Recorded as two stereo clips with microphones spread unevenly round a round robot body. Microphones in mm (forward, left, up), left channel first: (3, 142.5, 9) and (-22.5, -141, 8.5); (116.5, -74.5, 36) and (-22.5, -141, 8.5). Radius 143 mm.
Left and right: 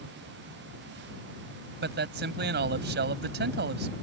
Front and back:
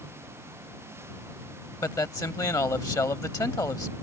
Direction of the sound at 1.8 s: 45° right.